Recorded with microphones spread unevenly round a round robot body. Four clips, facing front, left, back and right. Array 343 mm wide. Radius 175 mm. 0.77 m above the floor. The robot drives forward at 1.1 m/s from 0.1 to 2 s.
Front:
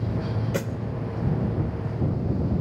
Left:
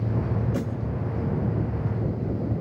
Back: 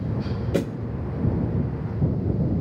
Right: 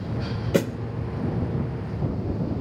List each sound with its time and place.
0.5 s a snare drum: 95° right, 1.9 m; by 0.8 s 100° right, 1.9 m